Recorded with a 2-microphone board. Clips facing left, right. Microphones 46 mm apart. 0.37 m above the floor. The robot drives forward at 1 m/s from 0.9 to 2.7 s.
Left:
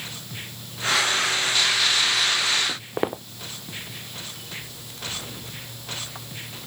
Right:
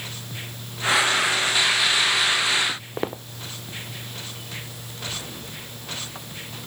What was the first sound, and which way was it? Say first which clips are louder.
Footsteps: left 2 dB; 15° left (ahead or behind).